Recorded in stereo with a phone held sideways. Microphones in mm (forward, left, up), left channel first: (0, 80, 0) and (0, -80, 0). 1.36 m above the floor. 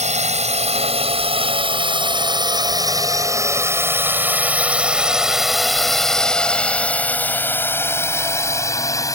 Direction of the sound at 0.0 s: 45° right (ahead or behind).